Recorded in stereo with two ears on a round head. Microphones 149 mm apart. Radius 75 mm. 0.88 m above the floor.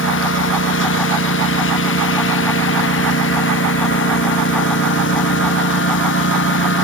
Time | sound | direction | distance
0.0 | a lawn mower | 90° left | ?